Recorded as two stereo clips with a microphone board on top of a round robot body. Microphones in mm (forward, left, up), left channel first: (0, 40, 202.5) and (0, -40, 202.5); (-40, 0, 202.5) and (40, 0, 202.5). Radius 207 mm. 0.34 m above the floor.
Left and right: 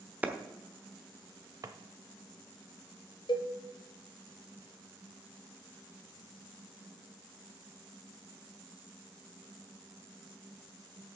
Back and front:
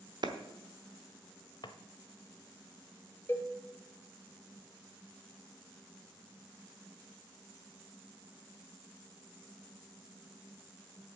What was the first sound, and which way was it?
A clap, 20° right.